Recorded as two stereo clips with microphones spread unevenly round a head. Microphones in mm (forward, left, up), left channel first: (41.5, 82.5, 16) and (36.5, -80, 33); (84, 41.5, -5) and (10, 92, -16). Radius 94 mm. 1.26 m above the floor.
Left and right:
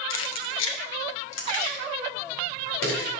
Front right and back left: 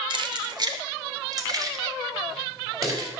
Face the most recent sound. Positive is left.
turn(degrees=95)